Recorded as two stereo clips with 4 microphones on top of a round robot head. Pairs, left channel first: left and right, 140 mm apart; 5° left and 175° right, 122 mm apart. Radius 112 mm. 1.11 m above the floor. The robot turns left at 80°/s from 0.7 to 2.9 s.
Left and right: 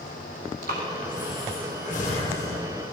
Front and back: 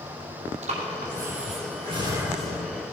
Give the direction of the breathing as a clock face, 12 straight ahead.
4 o'clock.